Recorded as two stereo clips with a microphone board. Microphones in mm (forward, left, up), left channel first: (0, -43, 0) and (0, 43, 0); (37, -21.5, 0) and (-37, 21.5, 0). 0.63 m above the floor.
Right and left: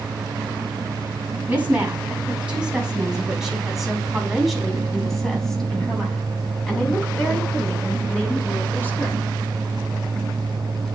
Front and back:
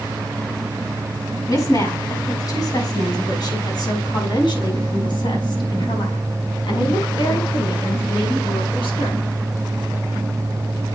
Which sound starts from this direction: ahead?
A woman speaking, at 1.5 s.